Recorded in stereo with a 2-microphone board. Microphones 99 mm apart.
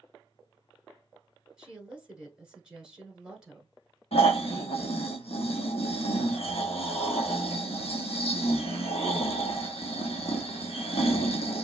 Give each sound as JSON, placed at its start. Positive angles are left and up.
{"t": 1.6, "sound": "a woman speaking", "side_deg": -5, "distance_m": 1.2}
{"t": 4.1, "sound": "snoring", "side_deg": 80, "distance_m": 1.2}